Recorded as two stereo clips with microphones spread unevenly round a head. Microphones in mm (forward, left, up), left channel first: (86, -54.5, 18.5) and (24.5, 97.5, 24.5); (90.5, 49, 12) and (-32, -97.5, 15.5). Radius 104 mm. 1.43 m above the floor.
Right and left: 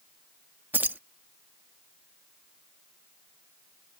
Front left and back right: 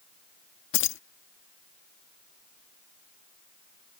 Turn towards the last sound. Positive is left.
turn(degrees=35)